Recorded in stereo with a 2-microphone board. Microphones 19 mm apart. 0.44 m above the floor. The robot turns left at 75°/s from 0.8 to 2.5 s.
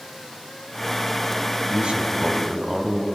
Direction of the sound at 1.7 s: 105° right.